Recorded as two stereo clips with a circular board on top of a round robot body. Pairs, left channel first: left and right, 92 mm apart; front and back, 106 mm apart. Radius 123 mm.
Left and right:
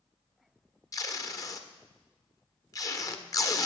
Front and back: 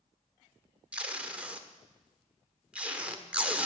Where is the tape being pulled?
110° left, 1.5 m.